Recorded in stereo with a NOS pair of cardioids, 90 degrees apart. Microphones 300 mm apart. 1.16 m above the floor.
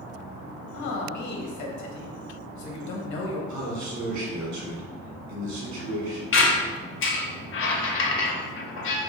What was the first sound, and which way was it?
A man speaking, 65° left.